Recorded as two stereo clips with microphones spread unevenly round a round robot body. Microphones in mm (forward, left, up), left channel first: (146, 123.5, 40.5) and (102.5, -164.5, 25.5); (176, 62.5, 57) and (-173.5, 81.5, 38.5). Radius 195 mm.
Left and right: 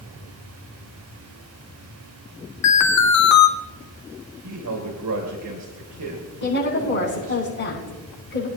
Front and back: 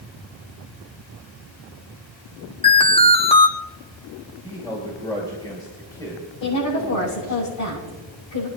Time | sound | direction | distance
2.6 | an alarm | 70° left | 1.3 m
4.4 | a man speaking | 85° right | 2 m
6.4 | a woman speaking | 30° left | 7 m